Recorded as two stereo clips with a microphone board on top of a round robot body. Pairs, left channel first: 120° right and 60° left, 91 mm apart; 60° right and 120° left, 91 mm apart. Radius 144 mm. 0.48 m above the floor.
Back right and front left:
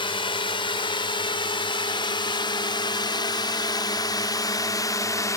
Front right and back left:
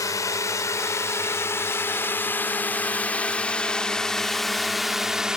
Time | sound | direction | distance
0.0 | a drone | 110° right | ?